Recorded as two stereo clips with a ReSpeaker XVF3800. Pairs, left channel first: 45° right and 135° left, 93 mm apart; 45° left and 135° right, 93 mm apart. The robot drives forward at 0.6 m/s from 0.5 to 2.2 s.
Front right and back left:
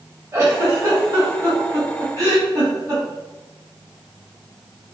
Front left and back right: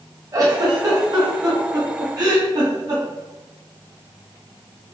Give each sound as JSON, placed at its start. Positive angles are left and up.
{"t": 0.3, "sound": "a giggle", "azimuth_deg": -170, "distance_m": 1.4}